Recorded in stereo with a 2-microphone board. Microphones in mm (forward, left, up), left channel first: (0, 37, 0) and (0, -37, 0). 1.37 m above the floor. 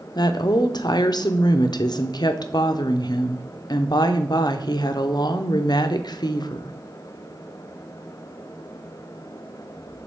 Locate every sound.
0.1 s a woman speaking: 65° left (ahead or behind), 0.6 m